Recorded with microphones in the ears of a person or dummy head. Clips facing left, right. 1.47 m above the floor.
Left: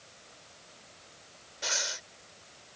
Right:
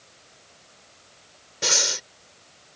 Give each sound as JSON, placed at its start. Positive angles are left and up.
{"t": 1.6, "sound": "breathing", "side_deg": -75}